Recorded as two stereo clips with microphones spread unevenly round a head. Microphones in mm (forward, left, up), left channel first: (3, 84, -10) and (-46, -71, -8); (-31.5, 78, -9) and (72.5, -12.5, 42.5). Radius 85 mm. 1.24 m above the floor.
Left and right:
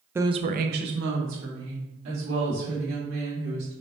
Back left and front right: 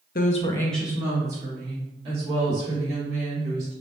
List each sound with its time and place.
0.1 s a woman speaking: 175° left, 0.5 m; by 3.7 s 90° right, 3 m